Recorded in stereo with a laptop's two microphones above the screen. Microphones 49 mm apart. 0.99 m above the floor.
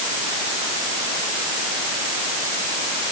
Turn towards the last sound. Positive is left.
No sound to turn to.